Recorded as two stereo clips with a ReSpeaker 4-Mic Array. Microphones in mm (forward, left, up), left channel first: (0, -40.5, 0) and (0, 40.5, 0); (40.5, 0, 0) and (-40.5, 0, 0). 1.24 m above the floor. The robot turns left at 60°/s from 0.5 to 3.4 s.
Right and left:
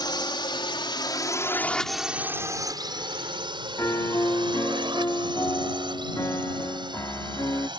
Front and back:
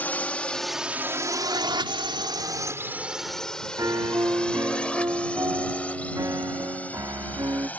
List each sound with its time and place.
0.0 s a drone: 70° right; by 7.8 s 70° left
3.8 s a piano: 140° right